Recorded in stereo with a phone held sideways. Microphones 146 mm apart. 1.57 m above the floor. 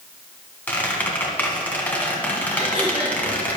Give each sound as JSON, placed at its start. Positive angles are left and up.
{"t": 0.7, "sound": "a squeak", "side_deg": 10, "distance_m": 1.7}
{"t": 2.6, "sound": "throat clearing", "side_deg": 30, "distance_m": 4.0}